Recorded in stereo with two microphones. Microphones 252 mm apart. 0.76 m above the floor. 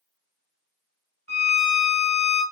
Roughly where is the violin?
Right.